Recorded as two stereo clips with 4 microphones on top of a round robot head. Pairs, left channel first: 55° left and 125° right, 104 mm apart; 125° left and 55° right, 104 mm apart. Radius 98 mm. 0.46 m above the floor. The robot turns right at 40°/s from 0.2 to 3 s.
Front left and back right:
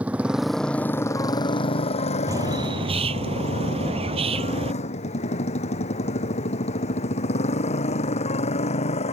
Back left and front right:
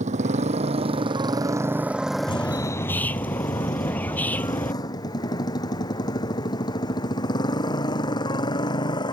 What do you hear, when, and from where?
0.0 s a motorcycle: 50° right; by 9.1 s 75° left
2.3 s a bird: 175° left; by 4.7 s 160° right